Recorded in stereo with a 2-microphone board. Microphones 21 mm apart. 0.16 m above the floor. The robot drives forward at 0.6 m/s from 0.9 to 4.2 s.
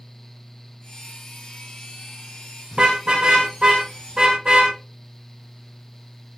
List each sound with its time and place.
2.7 s a car horn: 55° right (ahead or behind), 5.5 m; by 4.7 s 50° right (ahead or behind), 6 m